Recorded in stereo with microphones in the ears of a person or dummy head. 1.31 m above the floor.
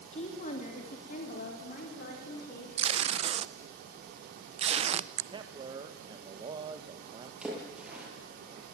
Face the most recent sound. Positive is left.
turn(degrees=-10)  # may be behind; listen again after turning